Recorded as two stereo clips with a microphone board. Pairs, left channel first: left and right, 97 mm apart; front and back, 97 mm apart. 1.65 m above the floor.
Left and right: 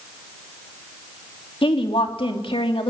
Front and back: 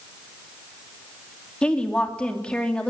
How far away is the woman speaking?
About 3 m.